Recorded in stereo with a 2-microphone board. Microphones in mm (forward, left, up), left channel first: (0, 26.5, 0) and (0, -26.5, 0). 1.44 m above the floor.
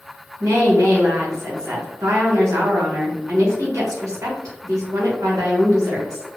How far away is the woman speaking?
About 1.1 m.